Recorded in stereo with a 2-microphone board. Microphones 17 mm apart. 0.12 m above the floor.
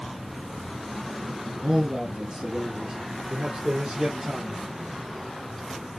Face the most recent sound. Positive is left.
turn(degrees=-65)  # may be behind; listen again after turning